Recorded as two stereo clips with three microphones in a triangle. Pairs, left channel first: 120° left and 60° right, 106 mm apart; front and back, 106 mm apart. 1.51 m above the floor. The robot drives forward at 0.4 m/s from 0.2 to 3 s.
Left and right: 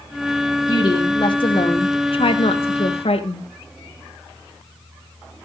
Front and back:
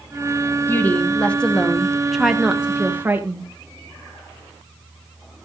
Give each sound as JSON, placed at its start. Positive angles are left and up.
{"t": 0.7, "sound": "a woman speaking", "azimuth_deg": 70, "distance_m": 1.6}